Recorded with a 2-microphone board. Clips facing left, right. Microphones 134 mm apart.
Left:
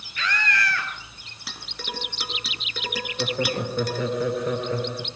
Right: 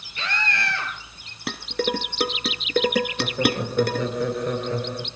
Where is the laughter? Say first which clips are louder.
Right 2 dB; centre (ahead or behind), 3.5 m.